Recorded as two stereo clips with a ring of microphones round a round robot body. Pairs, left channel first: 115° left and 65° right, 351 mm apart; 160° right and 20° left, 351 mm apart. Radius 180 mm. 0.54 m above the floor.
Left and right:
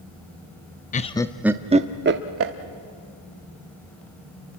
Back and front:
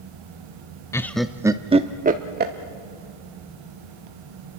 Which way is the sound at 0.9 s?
135° left.